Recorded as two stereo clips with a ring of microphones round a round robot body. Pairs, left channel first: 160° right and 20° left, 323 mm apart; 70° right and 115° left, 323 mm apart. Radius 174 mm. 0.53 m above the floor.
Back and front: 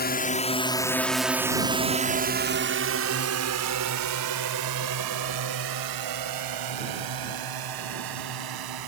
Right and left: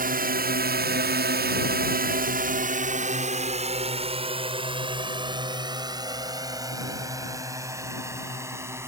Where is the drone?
160° left; by 8.9 s 30° left.